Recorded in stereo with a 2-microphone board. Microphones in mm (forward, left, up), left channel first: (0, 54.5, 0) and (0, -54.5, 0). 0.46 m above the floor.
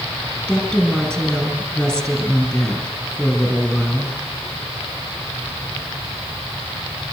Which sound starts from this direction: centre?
A woman speaking, at 0.5 s.